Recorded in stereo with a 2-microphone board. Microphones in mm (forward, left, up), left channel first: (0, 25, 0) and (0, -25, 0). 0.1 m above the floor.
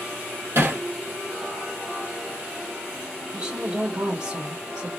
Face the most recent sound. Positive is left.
turn(degrees=-20)  # may be behind; listen again after turning